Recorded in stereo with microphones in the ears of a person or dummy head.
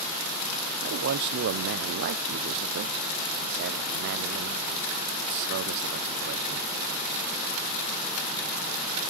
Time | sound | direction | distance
0.8 | a man speaking | 50° right (ahead or behind) | 0.5 m